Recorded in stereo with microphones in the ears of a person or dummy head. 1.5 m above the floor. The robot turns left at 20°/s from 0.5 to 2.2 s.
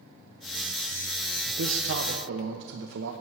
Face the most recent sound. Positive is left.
turn(degrees=-65)  # may be behind; listen again after turning